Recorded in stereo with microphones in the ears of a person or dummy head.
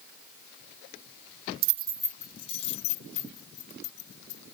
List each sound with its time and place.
1.6 s keys jangling: 55° right (ahead or behind); by 4.5 s 50° left (ahead or behind)